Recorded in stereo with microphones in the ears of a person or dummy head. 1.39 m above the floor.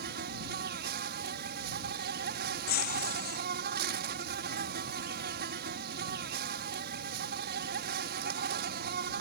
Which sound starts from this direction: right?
An insect, at 0.0 s.